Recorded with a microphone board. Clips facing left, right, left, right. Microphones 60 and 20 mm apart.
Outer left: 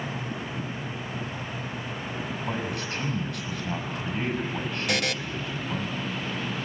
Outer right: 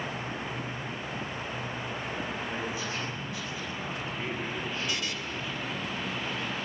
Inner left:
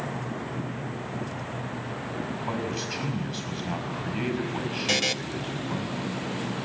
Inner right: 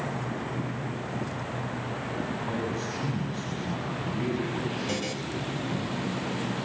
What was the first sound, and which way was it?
A man speaking, 70° left (ahead or behind).